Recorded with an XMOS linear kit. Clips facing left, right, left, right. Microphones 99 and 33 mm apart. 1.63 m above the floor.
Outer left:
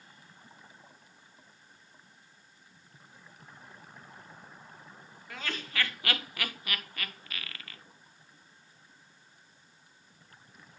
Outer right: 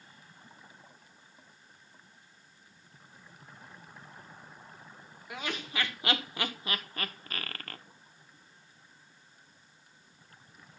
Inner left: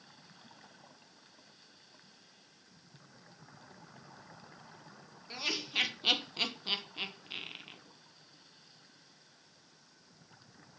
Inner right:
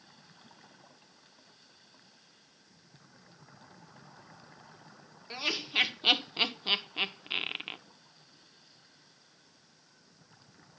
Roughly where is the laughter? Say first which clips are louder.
Outer right 1 dB, inner right 3 dB; centre.